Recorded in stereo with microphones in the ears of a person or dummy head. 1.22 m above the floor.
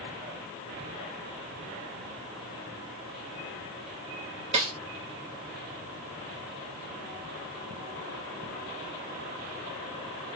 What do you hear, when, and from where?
4.5 s a snare drum: 40° right (ahead or behind), 1.1 m